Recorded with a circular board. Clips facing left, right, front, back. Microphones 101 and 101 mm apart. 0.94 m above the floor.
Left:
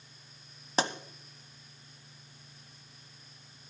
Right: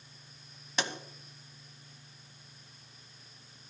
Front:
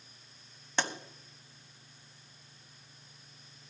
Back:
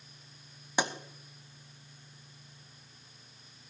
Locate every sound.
0.8 s a pop: 110° left, 1.0 m